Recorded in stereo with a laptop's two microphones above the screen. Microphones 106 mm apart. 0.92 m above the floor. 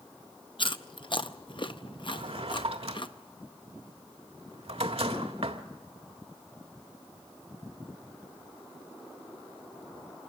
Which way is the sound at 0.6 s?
50° left (ahead or behind).